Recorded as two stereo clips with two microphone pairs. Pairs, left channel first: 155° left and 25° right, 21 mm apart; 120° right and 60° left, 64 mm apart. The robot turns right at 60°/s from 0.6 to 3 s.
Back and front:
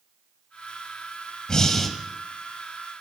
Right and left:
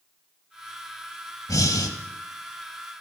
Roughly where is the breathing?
Behind right.